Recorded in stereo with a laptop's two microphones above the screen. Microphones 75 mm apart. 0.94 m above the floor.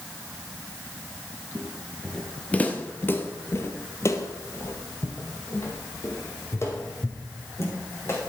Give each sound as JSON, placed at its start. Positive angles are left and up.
{"t": 1.6, "sound": "footsteps", "side_deg": 0, "distance_m": 1.3}